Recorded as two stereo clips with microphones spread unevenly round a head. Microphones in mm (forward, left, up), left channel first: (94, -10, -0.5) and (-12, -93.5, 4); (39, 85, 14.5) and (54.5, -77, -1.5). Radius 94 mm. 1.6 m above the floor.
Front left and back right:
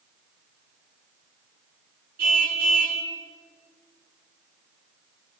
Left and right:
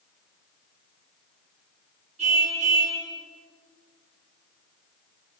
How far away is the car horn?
About 10 m.